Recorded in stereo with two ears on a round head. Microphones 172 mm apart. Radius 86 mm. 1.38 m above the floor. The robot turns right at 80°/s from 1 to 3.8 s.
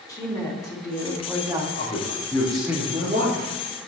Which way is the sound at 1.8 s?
60° left (ahead or behind).